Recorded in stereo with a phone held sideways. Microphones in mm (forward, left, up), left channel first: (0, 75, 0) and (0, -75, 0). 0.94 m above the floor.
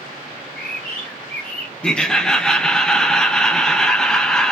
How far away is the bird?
About 0.8 m.